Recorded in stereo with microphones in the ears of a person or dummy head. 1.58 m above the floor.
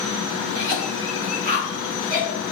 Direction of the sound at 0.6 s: 45° right (ahead or behind).